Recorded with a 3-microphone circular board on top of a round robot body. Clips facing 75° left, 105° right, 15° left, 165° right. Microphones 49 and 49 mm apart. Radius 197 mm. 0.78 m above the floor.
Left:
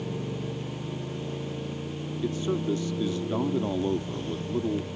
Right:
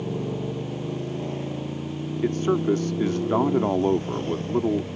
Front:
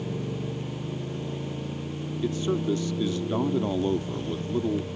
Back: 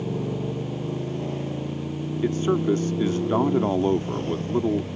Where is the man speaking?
125° right.